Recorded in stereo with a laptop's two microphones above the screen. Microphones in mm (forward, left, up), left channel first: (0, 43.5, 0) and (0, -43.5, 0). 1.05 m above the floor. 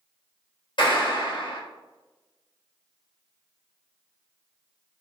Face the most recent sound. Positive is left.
turn(degrees=60)  # may be behind; listen again after turning